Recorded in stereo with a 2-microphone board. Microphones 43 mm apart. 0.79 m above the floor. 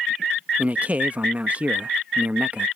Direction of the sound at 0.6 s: 35° right (ahead or behind).